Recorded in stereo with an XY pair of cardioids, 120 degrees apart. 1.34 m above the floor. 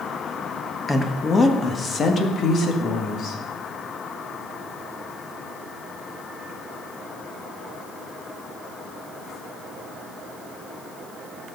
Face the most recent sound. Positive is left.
turn(degrees=60)